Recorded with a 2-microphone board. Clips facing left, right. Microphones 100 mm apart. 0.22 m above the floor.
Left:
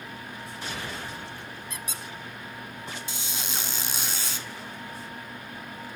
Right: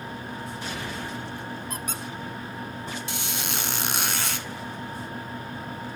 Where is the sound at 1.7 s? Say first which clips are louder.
Right 5 dB; 50° right (ahead or behind), 0.7 m.